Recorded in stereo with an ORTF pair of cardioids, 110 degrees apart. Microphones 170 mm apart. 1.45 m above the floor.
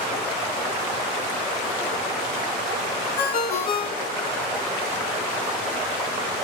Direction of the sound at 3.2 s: 65° left.